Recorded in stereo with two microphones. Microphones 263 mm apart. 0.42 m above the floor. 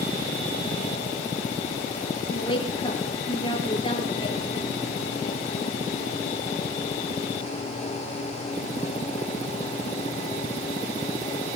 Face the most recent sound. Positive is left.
turn(degrees=20)  # may be behind; listen again after turning